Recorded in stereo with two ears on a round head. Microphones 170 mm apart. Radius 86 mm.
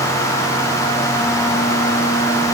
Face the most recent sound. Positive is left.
No sound to turn to.